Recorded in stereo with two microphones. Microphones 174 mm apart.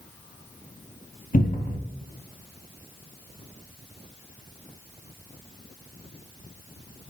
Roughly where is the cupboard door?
Left.